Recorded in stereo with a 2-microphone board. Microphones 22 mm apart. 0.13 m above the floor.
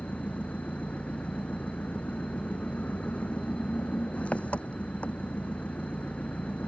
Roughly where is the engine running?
Left.